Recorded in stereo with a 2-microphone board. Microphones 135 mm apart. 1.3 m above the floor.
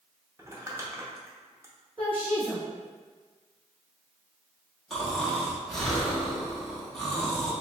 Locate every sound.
0.4 s crumpling: 20° right (ahead or behind), 0.7 m
2.0 s a woman speaking: 40° right (ahead or behind), 1.3 m
4.9 s snoring: 5° left (ahead or behind), 0.8 m